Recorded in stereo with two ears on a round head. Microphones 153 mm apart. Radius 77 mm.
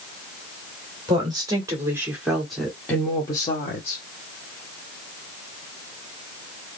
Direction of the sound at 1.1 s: 25° right (ahead or behind).